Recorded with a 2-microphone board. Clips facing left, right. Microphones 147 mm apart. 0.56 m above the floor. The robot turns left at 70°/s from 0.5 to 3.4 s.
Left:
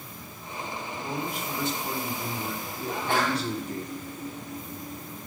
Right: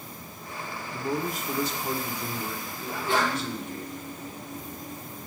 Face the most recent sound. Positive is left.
turn(degrees=55)